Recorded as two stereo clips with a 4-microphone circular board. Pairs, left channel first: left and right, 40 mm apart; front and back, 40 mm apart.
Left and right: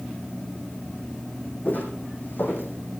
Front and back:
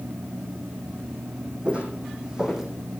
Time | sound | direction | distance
1.6 | footsteps | 125° left | 3 m